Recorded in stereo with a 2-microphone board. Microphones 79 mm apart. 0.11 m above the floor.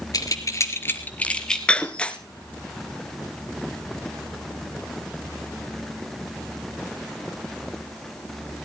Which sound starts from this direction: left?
Keys jangling, at 0.1 s.